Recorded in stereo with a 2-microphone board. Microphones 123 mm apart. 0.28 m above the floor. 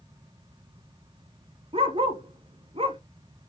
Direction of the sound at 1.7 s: 45° right (ahead or behind).